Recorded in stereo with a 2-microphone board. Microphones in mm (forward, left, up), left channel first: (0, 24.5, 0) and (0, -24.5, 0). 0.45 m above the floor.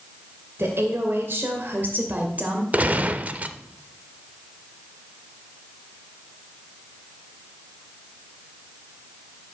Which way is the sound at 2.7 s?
30° right (ahead or behind).